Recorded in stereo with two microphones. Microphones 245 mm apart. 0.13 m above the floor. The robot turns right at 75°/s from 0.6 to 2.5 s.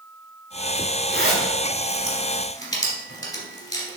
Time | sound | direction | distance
1.1 | a zipper | 40° left (ahead or behind) | 1.1 m